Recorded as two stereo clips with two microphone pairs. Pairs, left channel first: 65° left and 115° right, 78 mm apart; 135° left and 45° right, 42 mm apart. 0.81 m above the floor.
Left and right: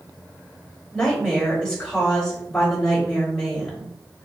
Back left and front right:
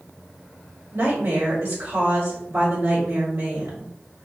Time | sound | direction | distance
0.9 | a woman speaking | 15° right | 4 m